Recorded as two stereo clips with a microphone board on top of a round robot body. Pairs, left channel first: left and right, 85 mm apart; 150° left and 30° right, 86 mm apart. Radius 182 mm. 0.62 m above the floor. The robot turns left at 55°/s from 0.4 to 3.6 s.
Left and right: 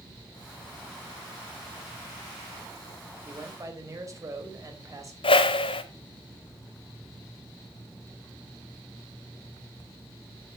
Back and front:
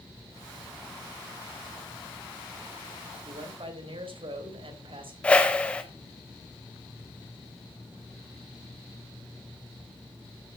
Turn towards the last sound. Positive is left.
turn(degrees=70)